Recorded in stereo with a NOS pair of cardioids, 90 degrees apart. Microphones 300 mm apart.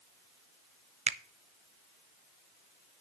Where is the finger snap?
20° right, 0.5 m.